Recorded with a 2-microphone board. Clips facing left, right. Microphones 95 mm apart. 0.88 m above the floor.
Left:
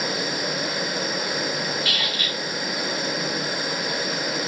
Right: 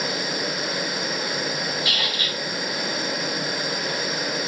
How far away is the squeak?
About 2 m.